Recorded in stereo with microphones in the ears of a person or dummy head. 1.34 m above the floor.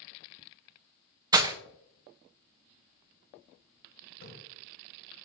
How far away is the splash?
About 3 m.